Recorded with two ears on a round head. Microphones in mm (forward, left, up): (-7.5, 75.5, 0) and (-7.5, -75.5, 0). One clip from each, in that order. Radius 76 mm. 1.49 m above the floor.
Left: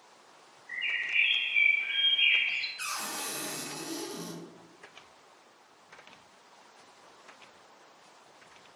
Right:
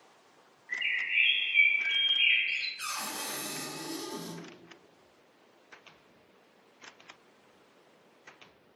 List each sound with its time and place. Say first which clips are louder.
0.7 s a bird: right 1 dB; 35° right (ahead or behind), 1.2 m
2.8 s a cupboard door: left 1 dB; 20° left (ahead or behind), 0.8 m